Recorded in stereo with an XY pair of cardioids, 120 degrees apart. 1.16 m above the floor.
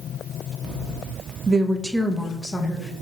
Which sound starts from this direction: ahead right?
A woman speaking, at 1.5 s.